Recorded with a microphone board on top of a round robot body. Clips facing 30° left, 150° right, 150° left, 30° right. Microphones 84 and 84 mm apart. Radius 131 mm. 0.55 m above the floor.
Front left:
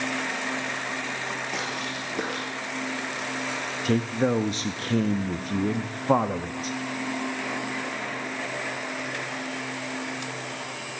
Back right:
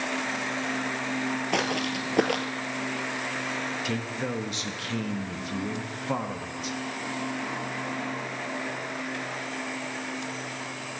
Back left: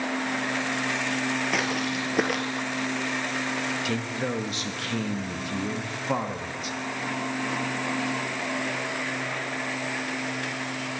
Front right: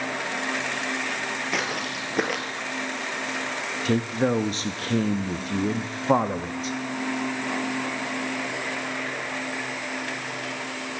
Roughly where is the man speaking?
Ahead.